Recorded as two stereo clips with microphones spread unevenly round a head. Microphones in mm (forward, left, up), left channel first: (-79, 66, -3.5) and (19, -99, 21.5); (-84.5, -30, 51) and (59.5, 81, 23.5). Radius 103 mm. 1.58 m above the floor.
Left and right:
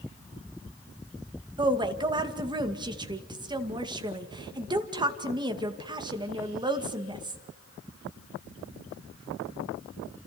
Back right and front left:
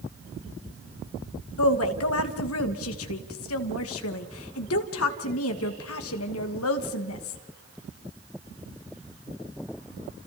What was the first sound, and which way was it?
A woman speaking, 125° right.